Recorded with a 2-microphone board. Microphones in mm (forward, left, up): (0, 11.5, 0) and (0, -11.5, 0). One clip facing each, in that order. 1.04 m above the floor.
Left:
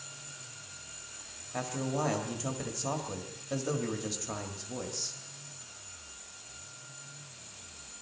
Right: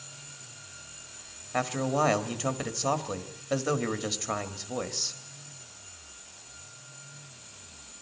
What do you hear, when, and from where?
1.5 s a man speaking: 40° right (ahead or behind), 1.6 m